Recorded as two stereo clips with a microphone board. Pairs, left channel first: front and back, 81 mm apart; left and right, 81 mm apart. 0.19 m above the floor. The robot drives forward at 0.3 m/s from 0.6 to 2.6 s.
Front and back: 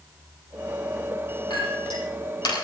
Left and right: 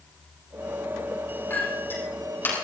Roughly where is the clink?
Ahead left.